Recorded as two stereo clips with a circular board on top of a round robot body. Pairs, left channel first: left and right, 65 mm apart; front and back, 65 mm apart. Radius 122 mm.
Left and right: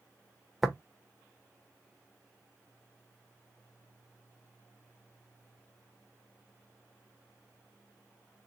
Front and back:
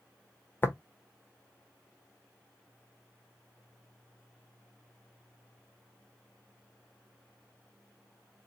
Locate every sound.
0.6 s tapping: 5° right, 1.0 m